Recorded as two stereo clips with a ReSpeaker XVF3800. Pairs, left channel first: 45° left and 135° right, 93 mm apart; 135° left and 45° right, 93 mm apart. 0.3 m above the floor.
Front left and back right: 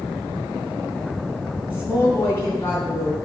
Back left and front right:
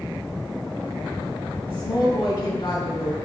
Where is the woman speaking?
110° left, 2.5 m.